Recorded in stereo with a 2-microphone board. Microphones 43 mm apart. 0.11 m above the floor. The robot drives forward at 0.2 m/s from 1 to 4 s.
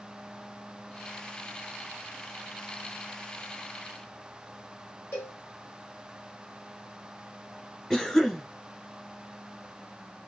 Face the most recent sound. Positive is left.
turn(degrees=10)  # may be behind; listen again after turning